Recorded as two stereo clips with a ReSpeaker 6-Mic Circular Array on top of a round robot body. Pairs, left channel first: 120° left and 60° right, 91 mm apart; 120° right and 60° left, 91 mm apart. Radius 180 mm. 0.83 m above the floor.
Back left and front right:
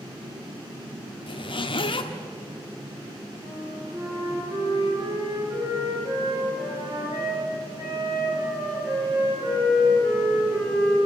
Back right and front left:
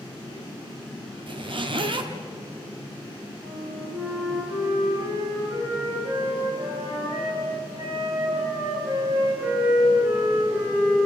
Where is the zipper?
90° left, 1.7 m.